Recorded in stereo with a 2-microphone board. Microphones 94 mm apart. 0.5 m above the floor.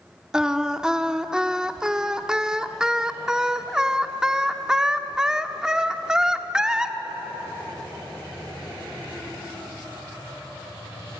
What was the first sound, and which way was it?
Singing, 5° right (ahead or behind).